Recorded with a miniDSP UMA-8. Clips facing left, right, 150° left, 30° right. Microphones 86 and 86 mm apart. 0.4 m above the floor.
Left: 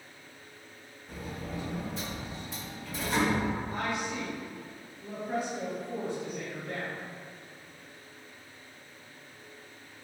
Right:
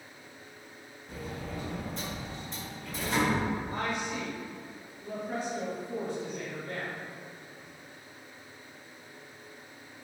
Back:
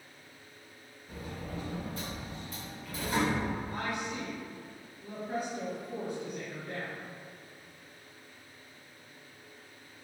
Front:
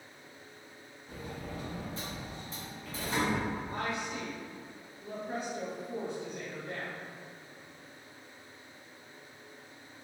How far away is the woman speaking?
About 1.2 m.